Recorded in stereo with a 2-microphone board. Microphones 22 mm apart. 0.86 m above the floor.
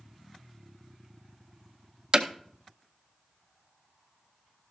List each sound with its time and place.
2.1 s hammering: 30° right (ahead or behind), 0.6 m